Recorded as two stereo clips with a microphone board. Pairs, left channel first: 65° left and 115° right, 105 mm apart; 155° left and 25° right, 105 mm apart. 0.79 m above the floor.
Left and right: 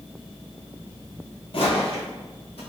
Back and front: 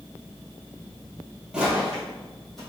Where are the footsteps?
60° left, 1.4 m; by 2.6 s 70° left, 2 m.